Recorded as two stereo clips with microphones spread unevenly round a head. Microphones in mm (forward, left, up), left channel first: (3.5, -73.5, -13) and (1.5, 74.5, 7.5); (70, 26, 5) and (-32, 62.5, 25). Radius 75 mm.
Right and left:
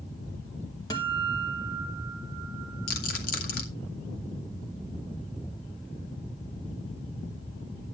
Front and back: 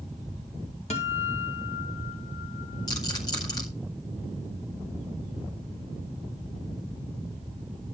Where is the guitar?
25° right, 2 m.